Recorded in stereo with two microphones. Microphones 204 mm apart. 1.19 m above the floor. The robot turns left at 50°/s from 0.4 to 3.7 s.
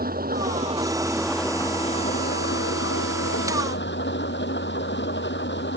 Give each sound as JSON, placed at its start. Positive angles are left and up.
{"t": 0.0, "sound": "an engine running", "azimuth_deg": -135}